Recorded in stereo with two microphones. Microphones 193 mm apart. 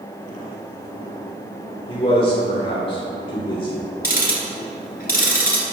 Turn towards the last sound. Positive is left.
turn(degrees=50)  # may be behind; listen again after turning